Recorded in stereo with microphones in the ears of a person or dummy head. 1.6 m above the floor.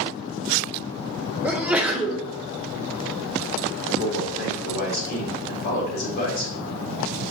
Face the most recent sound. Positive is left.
turn(degrees=50)  # may be behind; listen again after turning